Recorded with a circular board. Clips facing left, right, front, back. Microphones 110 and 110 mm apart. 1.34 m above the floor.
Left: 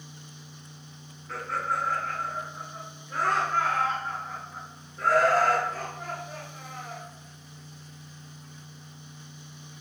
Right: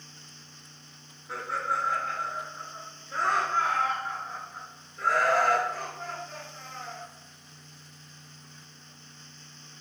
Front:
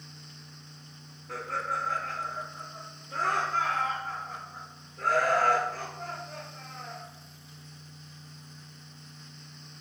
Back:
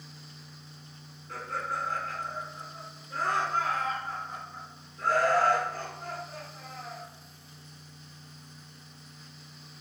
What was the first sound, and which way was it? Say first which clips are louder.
Laughter: left 1 dB, front 2 dB; 10° right.